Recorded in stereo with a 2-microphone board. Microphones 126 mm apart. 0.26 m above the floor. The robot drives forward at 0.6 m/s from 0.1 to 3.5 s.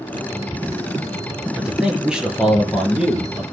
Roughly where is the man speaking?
Centre.